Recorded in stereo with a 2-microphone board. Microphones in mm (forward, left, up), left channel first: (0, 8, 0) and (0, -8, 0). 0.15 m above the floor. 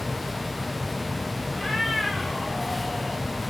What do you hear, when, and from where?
1.5 s a cat meowing: 5° left (ahead or behind), 4.5 m